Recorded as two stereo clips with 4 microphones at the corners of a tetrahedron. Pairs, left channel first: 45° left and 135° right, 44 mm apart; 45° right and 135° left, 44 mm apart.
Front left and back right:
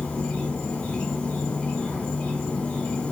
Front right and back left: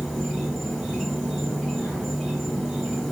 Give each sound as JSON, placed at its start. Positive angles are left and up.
{"t": 0.0, "sound": "an insect", "azimuth_deg": 55, "distance_m": 1.4}